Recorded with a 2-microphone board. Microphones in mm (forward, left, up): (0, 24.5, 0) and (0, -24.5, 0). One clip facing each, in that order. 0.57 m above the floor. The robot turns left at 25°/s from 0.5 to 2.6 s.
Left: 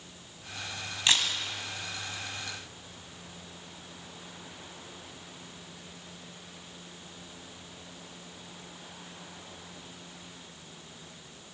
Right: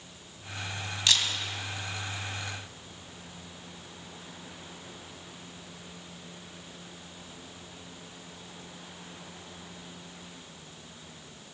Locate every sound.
1.1 s a camera shutter: 25° left (ahead or behind), 2 m; by 1.3 s 30° left (ahead or behind), 2 m